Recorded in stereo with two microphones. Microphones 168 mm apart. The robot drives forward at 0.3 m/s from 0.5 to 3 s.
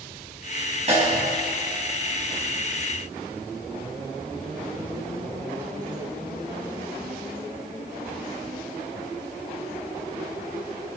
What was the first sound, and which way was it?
A snare drum, 40° right (ahead or behind).